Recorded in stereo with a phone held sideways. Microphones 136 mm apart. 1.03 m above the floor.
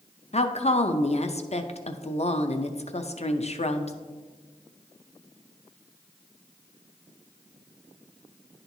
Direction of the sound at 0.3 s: 50° left (ahead or behind).